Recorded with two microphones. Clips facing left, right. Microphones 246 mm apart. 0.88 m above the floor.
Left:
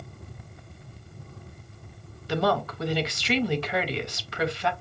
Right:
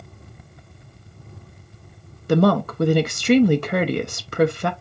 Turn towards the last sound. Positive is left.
turn(degrees=-55)  # may be behind; listen again after turning